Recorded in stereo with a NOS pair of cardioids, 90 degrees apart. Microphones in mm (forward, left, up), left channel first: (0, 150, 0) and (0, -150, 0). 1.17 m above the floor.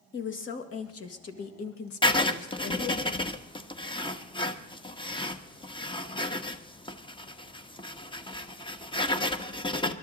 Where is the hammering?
I don't hear hammering.